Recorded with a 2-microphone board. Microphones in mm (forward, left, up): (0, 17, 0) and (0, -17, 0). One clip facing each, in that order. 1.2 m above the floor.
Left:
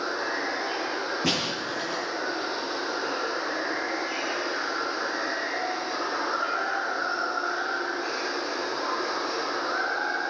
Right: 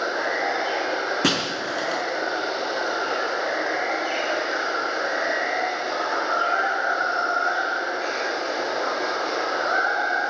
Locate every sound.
0.0 s running water: 85° right, 5 m
1.2 s breaking glass: 80° right, 5 m